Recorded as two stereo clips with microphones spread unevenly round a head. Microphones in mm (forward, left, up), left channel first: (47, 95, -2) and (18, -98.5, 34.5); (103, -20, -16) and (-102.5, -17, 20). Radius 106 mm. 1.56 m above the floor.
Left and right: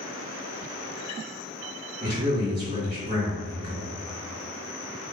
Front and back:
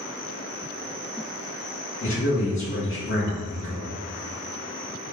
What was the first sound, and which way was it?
A man speaking, 40° right.